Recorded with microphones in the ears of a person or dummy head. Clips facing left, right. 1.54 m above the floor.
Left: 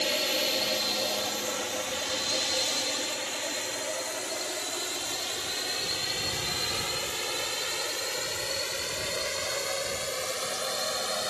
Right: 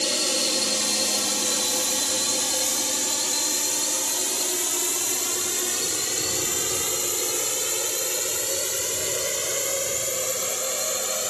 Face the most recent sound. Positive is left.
turn(degrees=-40)  # may be behind; listen again after turning